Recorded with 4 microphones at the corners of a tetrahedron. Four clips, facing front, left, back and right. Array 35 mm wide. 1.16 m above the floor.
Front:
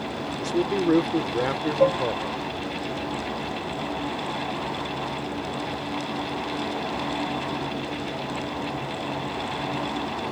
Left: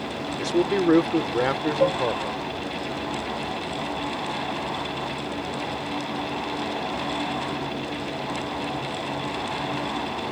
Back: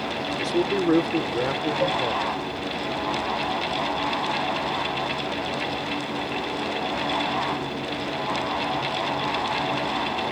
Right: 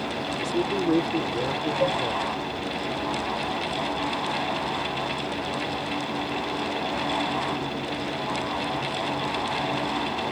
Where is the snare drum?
No snare drum in this recording.